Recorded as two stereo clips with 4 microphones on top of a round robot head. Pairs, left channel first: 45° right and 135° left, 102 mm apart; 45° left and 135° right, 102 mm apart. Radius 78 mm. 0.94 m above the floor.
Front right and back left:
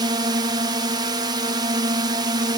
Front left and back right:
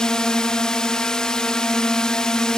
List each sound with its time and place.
0.0 s a drone: 125° left